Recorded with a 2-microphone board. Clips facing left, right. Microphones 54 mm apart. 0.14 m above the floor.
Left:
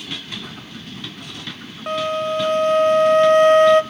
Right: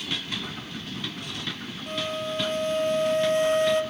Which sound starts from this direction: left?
A flute, at 1.9 s.